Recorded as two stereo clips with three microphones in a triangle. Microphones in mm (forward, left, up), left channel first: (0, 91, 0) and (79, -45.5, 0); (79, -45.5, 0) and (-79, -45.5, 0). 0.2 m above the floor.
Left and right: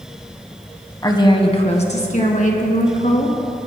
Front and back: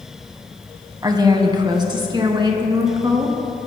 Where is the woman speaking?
155° left, 1.4 m; by 3.4 s 125° left, 3 m.